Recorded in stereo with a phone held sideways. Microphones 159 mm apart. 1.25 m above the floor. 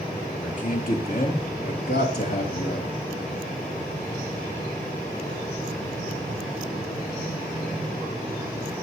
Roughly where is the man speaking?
Left.